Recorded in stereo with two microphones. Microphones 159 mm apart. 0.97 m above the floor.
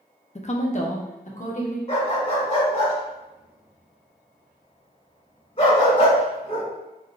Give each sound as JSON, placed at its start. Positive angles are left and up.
{"t": 0.3, "sound": "a woman speaking", "side_deg": 45, "distance_m": 0.6}
{"t": 1.9, "sound": "a dog barking", "side_deg": 40, "distance_m": 1.8}